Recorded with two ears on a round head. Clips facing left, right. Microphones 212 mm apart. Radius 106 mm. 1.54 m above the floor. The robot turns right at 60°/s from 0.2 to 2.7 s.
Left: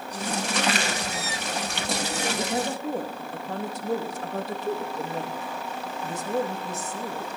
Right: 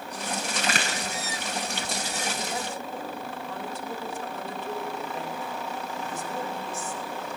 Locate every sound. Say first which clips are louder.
0.6 s a crack: left 5 dB; 35° right (ahead or behind), 6.5 m; by 0.9 s 55° right (ahead or behind), 6.5 m
2.4 s a woman speaking: left 6 dB; 15° left (ahead or behind), 2.5 m; by 7.4 s 35° left (ahead or behind), 2.5 m